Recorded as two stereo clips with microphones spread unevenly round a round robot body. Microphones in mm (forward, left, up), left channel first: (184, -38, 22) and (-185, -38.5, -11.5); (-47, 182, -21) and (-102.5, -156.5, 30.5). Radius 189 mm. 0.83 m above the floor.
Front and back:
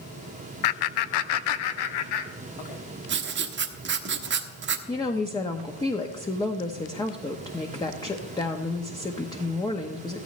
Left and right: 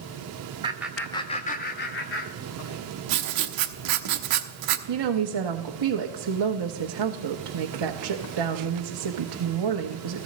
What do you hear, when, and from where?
0.6 s laughter: 20° right, 0.6 m; by 2.8 s 30° left, 1.6 m
3.1 s writing: 120° right, 1.1 m
4.9 s a woman speaking: 80° right, 1.0 m